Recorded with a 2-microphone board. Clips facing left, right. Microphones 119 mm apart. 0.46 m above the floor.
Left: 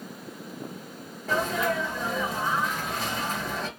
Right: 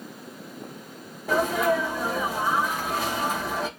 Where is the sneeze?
15° right (ahead or behind), 1.3 m.